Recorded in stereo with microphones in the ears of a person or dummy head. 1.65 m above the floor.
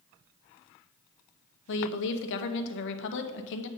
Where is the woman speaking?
65° left (ahead or behind), 0.8 m.